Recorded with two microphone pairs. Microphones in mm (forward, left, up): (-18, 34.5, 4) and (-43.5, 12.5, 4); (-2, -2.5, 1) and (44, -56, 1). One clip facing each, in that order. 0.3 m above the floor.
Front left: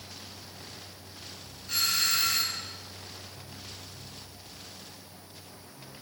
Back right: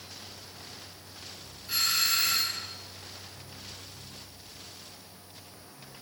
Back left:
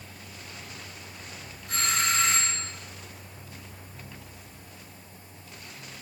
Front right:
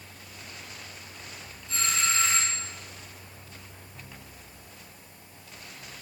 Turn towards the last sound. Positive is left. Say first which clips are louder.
# even, back left 2 dB
turn(degrees=140)